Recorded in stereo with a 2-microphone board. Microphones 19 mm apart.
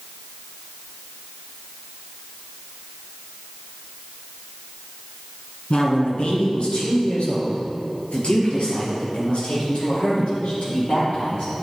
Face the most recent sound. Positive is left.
turn(degrees=75)  # may be behind; listen again after turning